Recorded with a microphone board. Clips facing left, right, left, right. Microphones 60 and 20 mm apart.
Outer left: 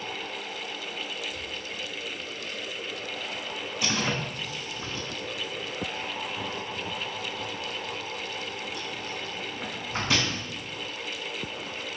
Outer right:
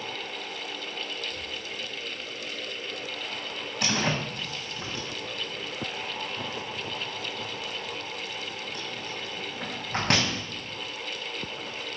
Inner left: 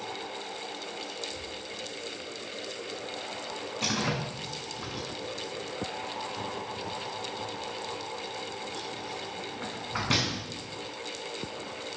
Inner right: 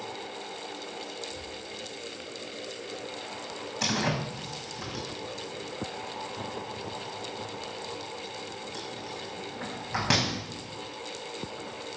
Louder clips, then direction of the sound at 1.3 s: Even, inner left 1 dB; 15° right (ahead or behind).